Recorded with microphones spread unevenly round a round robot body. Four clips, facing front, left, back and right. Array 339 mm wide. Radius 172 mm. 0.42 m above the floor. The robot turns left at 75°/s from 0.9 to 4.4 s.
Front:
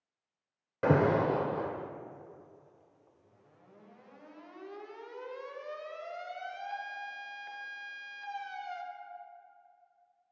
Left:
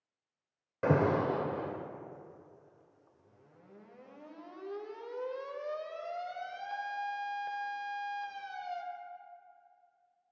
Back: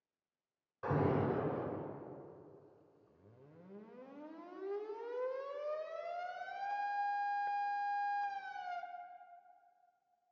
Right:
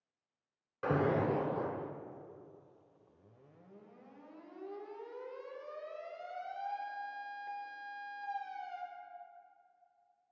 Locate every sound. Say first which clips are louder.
0.8 s an alarm: left 3 dB, front 8 dB; 35° left, 0.9 m; by 8.8 s 130° left, 0.9 m